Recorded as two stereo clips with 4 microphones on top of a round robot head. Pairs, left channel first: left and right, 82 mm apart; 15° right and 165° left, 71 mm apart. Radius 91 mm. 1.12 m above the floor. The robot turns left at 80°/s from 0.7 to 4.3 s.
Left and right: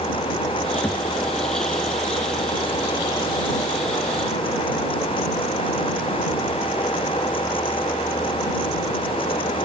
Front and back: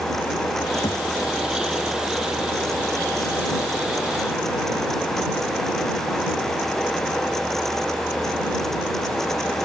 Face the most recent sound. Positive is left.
turn(degrees=100)